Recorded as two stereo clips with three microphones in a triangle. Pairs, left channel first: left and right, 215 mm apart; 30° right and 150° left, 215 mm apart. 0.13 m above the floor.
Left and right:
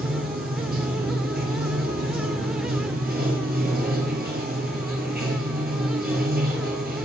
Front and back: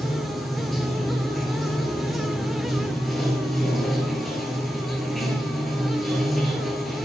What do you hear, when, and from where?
0.0 s running water: 120° right, 1.7 m